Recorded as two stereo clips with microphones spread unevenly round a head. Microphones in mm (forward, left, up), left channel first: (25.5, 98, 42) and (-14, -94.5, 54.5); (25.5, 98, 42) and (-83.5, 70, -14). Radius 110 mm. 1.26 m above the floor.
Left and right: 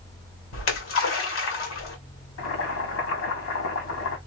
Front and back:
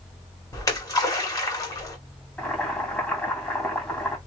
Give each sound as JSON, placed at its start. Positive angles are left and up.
{"t": 0.5, "sound": "a splash", "azimuth_deg": 85, "distance_m": 2.0}
{"t": 2.4, "sound": "boiling", "azimuth_deg": 95, "distance_m": 2.0}